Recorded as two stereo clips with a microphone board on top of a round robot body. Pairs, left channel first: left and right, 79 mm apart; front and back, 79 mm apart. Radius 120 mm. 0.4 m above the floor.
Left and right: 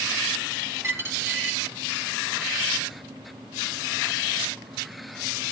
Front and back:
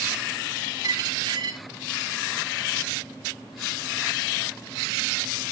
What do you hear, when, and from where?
0.8 s a dropped coin: 145° right, 4 m